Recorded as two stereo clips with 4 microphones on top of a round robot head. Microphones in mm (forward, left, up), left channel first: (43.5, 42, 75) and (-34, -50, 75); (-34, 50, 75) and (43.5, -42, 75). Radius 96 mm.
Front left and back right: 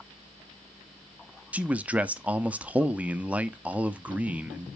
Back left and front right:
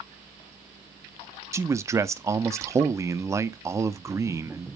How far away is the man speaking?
About 0.9 m.